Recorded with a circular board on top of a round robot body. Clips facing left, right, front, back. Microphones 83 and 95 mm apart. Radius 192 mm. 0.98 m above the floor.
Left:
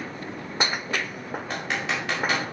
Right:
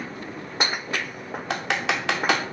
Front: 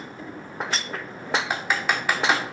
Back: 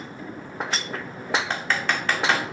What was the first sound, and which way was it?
Typing on a keyboard, 80° right.